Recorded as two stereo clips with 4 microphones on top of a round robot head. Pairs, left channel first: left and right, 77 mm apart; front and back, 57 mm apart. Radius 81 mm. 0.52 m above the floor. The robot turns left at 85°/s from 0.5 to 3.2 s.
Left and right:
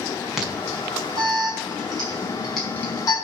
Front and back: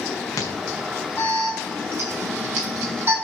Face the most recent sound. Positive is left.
turn(degrees=125)